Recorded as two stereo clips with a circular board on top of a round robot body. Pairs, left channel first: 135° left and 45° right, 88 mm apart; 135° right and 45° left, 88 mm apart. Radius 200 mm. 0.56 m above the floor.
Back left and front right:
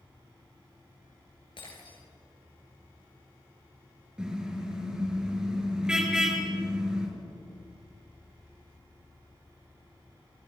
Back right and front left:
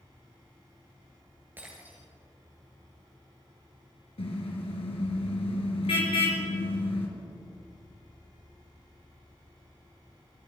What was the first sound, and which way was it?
An insect, 135° left.